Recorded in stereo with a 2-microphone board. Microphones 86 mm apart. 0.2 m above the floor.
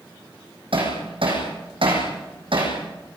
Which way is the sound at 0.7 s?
70° right (ahead or behind).